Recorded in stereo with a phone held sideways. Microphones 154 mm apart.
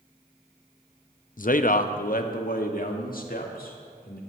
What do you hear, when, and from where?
1.4 s a man speaking: 60° left (ahead or behind), 0.5 m; by 4.2 s 70° left (ahead or behind), 2 m